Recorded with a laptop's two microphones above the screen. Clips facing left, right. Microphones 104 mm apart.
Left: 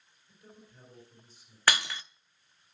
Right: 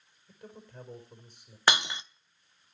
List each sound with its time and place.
0.3 s a man speaking: 65° right (ahead or behind), 4.5 m
1.7 s breaking glass: 20° right (ahead or behind), 0.5 m